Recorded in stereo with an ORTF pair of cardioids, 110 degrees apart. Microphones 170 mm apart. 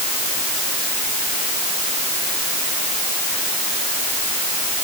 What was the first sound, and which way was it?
Only background noise.